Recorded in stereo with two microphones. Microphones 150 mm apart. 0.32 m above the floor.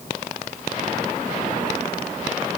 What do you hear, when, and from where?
Only background noise.